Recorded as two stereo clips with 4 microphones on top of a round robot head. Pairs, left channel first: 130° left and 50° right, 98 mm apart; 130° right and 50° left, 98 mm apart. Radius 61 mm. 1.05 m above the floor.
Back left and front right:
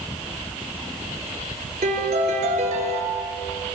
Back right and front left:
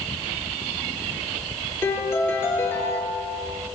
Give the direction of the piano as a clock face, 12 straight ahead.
2 o'clock.